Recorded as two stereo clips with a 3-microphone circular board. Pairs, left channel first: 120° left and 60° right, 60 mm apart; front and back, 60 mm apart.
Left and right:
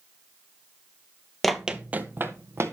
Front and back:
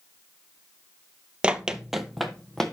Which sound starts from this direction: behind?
Running footsteps, at 1.4 s.